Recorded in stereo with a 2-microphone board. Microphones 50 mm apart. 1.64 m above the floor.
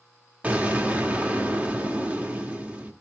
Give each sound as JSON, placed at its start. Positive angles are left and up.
{"t": 0.4, "sound": "an explosion", "side_deg": -30, "distance_m": 1.8}